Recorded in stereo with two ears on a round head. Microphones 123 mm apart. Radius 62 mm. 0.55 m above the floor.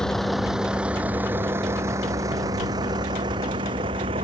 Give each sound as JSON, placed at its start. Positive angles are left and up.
{"t": 0.0, "sound": "a vehicle", "side_deg": 5}